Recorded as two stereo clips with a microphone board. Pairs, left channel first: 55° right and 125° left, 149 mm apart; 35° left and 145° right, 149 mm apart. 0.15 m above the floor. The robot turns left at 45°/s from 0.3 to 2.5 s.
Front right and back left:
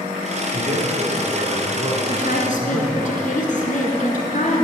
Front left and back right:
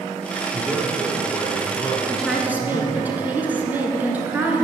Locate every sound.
0.5 s a man speaking: 140° left, 1.9 m; by 3.1 s 45° left, 1.9 m
2.1 s a woman speaking: 50° right, 1.9 m; by 4.7 s 70° right, 1.9 m